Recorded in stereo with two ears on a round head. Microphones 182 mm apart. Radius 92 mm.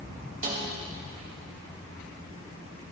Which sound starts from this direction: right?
A snare drum, at 0.4 s.